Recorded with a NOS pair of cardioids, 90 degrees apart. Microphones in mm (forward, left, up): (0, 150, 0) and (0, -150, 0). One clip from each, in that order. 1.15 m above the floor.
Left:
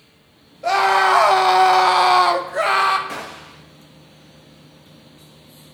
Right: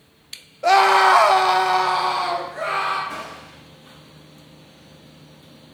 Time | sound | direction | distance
0.6 | a scream | 20° right | 1.0 m
3.1 | a gunshot | 65° left | 1.5 m